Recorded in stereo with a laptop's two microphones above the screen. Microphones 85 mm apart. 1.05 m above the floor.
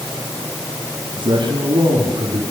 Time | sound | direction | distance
1.1 | a man speaking | 65° right (ahead or behind) | 6.5 m